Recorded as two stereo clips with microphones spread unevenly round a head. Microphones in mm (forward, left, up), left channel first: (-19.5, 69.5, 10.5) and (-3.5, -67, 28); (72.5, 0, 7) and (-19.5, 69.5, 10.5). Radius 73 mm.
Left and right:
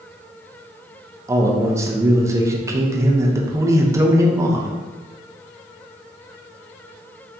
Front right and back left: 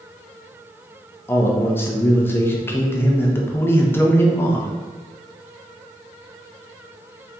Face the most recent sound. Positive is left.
turn(degrees=-35)